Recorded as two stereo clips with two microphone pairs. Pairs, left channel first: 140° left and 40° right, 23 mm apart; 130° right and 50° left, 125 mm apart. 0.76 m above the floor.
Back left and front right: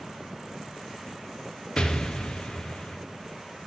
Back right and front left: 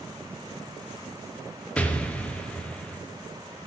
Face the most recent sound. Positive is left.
turn(degrees=160)